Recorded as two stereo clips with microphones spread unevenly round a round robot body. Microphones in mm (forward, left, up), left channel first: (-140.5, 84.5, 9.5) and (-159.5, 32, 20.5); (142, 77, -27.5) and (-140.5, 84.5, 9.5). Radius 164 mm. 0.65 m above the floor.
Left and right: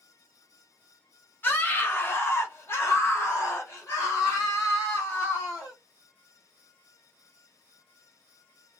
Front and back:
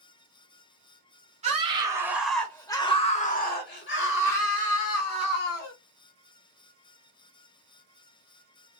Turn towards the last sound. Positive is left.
turn(degrees=15)